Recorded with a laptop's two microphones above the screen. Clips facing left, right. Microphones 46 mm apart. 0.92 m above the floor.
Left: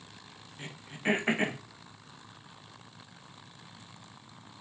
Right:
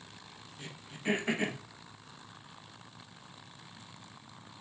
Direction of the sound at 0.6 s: 35° left (ahead or behind).